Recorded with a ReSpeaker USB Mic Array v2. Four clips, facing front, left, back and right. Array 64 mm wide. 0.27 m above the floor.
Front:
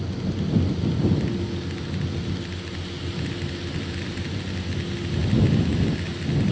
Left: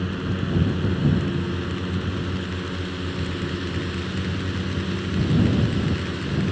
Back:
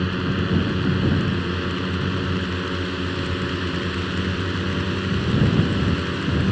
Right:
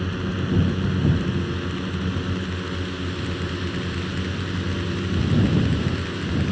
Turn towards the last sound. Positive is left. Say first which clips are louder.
# even, back 5 dB
turn(degrees=-175)